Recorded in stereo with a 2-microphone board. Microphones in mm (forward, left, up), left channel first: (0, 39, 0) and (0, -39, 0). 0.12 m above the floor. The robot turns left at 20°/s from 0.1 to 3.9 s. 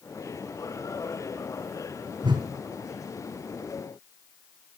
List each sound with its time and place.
2.2 s a whoosh: 75° right (ahead or behind), 3 m; by 2.5 s 70° right (ahead or behind), 3 m